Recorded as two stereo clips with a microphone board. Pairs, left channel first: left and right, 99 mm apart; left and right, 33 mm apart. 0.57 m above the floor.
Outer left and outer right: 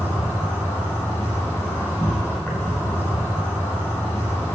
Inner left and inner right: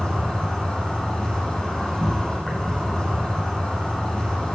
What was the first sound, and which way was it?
An insect, 20° left (ahead or behind).